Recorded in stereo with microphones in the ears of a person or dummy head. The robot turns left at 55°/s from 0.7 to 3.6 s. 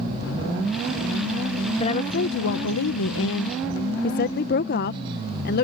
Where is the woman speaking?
150° left; by 5.6 s 50° left.